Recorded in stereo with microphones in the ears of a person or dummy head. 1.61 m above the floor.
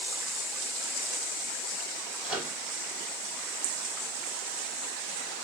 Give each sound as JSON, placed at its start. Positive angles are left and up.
{"t": 2.2, "sound": "a microwave", "side_deg": 0, "distance_m": 3.0}